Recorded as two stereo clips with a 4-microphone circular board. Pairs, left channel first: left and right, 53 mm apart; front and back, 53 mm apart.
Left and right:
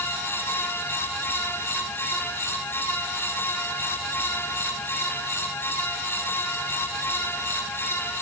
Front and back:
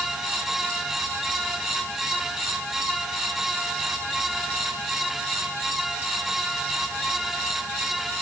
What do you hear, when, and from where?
Only background noise.